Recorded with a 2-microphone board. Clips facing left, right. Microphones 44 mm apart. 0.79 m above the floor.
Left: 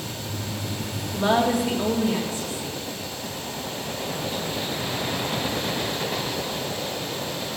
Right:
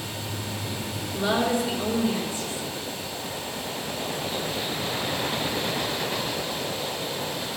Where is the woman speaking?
50° left (ahead or behind), 2.0 m.